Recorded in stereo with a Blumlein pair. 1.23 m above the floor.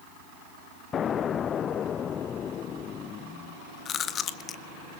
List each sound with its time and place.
0.9 s an explosion: 25° left, 0.6 m
3.9 s chewing: 25° left, 1.8 m